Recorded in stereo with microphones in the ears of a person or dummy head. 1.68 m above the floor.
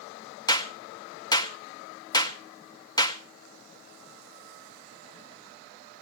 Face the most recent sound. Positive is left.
turn(degrees=20)  # may be behind; listen again after turning